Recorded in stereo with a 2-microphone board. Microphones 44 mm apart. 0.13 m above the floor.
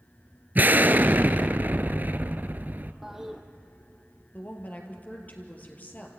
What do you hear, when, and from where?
0.6 s an explosion: 40° right (ahead or behind), 0.8 m
3.0 s a toilet flushing: 10° right (ahead or behind), 1.7 m
4.3 s a woman speaking: 35° left (ahead or behind), 3 m